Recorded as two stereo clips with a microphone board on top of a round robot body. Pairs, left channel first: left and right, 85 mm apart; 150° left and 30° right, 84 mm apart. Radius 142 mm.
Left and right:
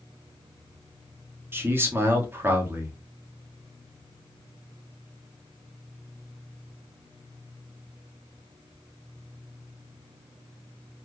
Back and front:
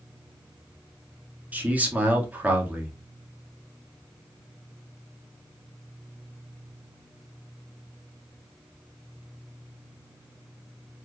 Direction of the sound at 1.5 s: 80° right.